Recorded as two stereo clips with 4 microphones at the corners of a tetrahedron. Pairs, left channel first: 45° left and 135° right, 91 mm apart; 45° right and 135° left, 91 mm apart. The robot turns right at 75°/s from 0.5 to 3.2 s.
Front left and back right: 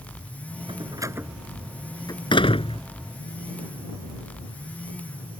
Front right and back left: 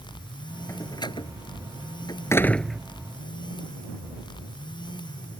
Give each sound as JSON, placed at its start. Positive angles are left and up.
{"t": 0.7, "sound": "a door slam", "azimuth_deg": -105}